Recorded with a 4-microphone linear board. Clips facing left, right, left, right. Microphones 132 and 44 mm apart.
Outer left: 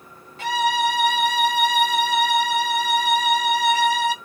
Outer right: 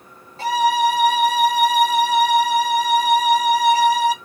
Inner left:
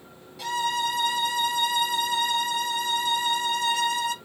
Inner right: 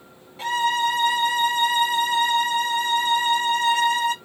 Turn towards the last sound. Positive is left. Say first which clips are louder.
# outer right 4 dB, inner right 5 dB
turn(degrees=-35)  # may be behind; listen again after turning